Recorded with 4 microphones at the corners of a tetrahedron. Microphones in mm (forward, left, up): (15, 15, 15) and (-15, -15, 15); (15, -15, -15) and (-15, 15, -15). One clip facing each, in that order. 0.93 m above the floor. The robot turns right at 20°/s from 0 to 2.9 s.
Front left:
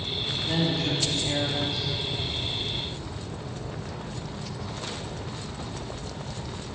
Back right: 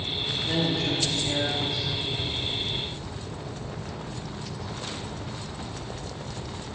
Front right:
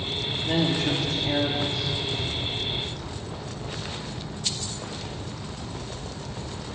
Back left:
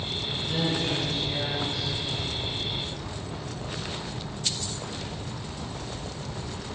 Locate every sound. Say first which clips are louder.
0.5 s a woman speaking: even, front right 4 dB; 50° right, 1.8 m; by 1.9 s 20° right, 1.8 m